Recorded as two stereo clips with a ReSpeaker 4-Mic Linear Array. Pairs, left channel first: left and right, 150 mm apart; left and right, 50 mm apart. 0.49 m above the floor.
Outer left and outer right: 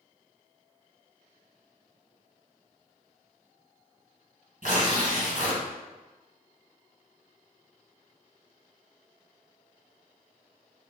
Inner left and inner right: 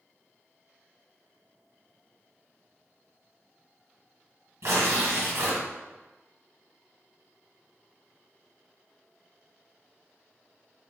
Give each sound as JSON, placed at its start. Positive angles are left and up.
{"t": 4.6, "sound": "tearing paper", "side_deg": -70, "distance_m": 1.9}